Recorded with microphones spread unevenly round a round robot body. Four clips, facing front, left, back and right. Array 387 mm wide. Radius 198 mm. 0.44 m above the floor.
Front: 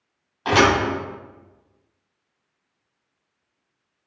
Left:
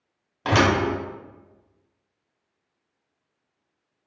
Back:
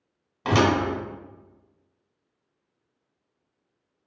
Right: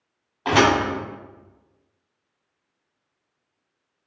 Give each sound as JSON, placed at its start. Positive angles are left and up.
{"t": 0.5, "sound": "a thud", "azimuth_deg": 130, "distance_m": 1.1}